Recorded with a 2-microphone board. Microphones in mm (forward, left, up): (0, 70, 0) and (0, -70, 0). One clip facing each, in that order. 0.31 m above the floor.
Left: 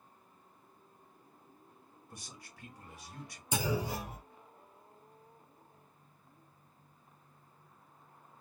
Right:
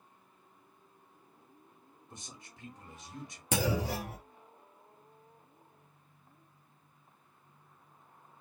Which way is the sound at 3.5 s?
80° right.